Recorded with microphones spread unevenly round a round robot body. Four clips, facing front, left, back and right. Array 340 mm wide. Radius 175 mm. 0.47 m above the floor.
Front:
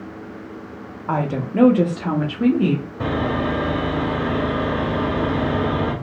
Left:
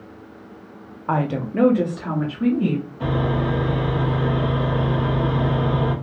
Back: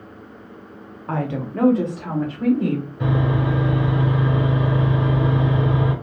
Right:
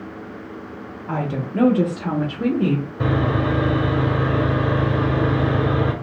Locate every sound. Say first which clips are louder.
1.1 s a woman speaking: left 3 dB, front 3 dB; 45° left, 0.8 m; by 2.9 s 45° right, 1.3 m
3.0 s sawing: right 2 dB, even; 65° right, 1.9 m